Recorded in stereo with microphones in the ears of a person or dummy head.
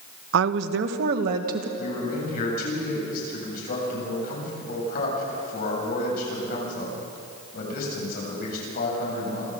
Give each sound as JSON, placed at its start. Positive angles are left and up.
{"t": 0.3, "sound": "a woman speaking", "side_deg": -75, "distance_m": 1.0}
{"t": 1.8, "sound": "a man speaking", "side_deg": 55, "distance_m": 8.0}